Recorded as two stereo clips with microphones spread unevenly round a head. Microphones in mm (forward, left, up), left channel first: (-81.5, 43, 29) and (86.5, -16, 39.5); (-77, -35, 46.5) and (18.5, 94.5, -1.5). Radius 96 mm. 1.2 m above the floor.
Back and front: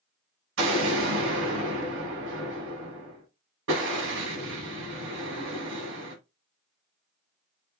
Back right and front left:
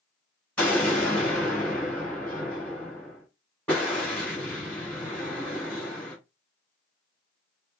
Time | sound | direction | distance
0.6 | an explosion | 40° right | 4 m